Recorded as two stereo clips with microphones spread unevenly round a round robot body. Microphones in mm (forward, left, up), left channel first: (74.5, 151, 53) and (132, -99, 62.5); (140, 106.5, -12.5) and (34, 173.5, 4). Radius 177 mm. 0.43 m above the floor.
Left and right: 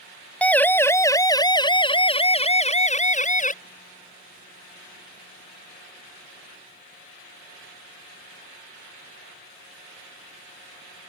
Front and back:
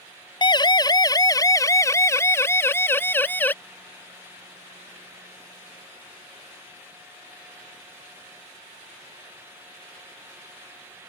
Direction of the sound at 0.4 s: 20° left.